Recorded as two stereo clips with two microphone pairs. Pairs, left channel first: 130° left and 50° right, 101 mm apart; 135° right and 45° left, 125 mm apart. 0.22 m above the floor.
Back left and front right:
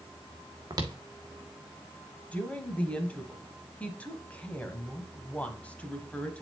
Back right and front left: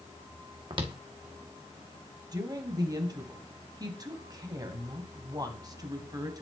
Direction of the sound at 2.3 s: 65° left.